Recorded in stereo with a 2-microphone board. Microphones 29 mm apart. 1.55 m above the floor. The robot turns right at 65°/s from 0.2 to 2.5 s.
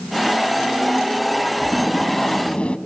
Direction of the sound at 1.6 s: 10° right.